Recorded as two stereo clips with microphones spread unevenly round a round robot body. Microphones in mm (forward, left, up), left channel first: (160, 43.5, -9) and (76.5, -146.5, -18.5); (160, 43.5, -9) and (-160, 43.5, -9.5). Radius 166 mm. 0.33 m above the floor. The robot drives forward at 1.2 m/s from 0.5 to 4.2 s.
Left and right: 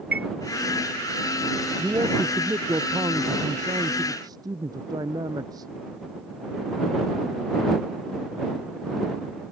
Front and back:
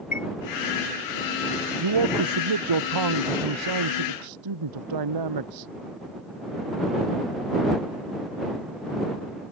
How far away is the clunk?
No clunk in this recording.